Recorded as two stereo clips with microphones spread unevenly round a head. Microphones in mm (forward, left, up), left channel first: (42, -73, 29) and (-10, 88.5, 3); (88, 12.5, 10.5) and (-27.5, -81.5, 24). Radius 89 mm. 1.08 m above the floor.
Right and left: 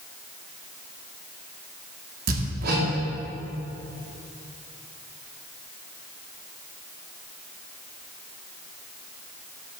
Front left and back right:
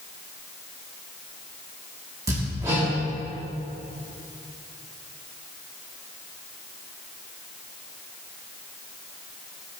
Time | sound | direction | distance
2.3 | hammering | 145° left | 2 m